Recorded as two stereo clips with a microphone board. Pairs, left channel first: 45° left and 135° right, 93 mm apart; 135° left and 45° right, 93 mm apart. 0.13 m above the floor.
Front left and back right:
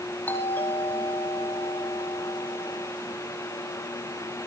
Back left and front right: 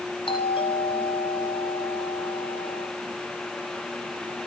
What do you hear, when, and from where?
0.3 s a doorbell: 115° left, 5.5 m